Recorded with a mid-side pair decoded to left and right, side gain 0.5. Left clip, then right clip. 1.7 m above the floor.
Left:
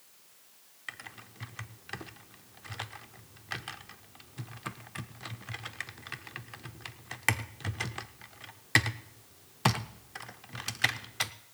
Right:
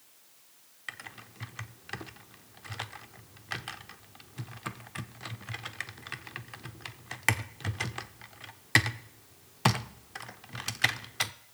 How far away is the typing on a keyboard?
About 0.7 m.